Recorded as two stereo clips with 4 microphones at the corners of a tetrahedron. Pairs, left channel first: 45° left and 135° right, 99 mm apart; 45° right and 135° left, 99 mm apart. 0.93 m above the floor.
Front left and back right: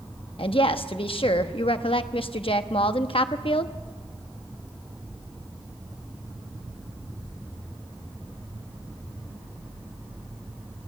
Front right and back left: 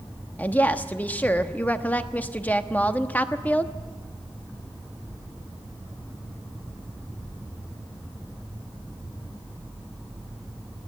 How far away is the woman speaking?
About 1.0 m.